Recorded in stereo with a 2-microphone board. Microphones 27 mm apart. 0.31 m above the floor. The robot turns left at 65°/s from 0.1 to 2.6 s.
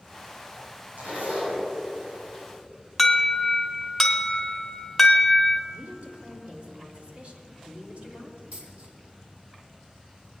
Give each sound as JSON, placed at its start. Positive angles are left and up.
{"t": 1.0, "sound": "a zipper", "azimuth_deg": -55, "distance_m": 5.5}
{"t": 3.0, "sound": "an alarm", "side_deg": 0, "distance_m": 1.7}
{"t": 5.7, "sound": "a woman speaking", "side_deg": -55, "distance_m": 3.5}
{"t": 8.5, "sound": "a dropped coin", "side_deg": -70, "distance_m": 3.0}